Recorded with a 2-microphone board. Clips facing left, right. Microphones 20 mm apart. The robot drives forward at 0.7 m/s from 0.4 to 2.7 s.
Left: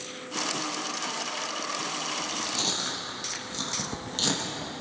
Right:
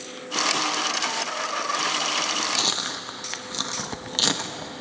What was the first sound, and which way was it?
Chewing, 30° right (ahead or behind).